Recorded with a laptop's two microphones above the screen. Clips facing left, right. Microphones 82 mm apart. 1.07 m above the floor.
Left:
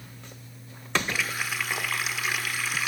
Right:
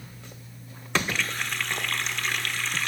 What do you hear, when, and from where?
1.1 s a running tap: 5° left (ahead or behind), 1.7 m